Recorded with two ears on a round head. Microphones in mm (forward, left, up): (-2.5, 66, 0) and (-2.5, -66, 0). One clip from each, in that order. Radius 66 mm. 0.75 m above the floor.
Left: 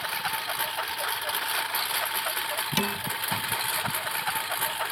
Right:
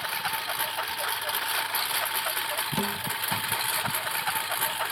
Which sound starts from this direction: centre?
A lawn mower, at 0.0 s.